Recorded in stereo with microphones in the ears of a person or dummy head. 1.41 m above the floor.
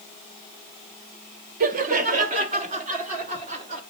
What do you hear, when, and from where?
1.6 s laughter: 45° right (ahead or behind), 0.8 m; by 3.8 s 40° right (ahead or behind), 2 m